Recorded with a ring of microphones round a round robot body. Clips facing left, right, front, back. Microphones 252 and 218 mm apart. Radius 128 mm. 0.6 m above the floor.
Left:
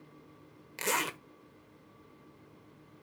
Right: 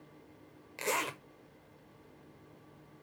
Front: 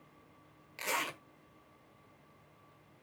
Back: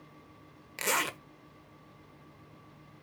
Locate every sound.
0.8 s a zipper: 155° left, 1.3 m